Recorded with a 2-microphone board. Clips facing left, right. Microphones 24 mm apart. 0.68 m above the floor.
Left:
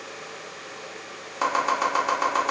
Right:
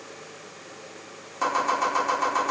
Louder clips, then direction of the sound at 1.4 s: Left 1 dB; 20° left (ahead or behind).